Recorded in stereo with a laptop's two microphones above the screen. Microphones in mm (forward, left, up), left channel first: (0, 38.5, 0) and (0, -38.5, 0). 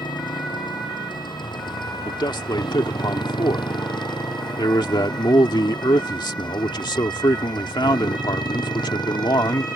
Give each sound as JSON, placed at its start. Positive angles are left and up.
{"t": 0.0, "sound": "a motorcycle", "side_deg": 75}
{"t": 2.0, "sound": "a man speaking", "side_deg": 80}